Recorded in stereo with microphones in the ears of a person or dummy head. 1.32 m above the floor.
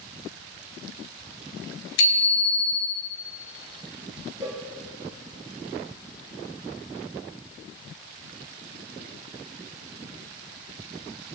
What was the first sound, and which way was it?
A bicycle bell, 70° left (ahead or behind).